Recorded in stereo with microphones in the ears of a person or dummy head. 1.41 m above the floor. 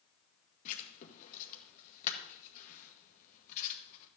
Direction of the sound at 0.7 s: 50° left (ahead or behind).